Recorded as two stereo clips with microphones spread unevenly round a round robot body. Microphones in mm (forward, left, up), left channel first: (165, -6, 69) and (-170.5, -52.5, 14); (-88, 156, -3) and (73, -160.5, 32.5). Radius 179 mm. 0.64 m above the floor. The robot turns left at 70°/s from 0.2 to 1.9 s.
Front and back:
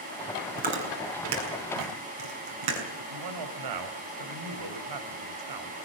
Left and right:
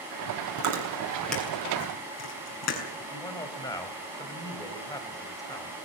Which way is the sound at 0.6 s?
105° right.